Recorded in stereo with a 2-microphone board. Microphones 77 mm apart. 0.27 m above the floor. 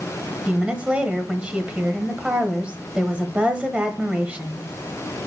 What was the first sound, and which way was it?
A woman speaking, 15° right (ahead or behind).